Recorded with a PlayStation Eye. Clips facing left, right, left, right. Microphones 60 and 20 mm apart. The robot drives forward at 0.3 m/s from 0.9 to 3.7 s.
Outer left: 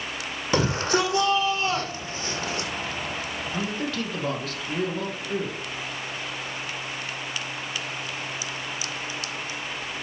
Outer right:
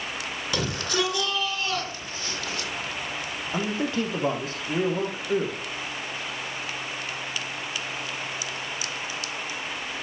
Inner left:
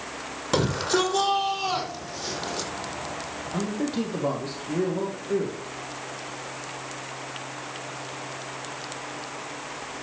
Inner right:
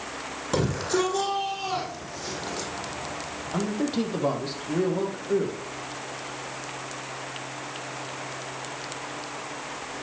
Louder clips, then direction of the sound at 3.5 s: Outer right 3 dB, inner right 1 dB; 25° right (ahead or behind).